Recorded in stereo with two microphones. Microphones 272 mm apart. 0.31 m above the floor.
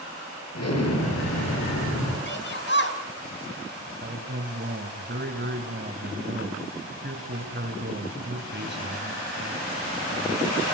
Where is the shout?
40° left (ahead or behind), 2.5 m.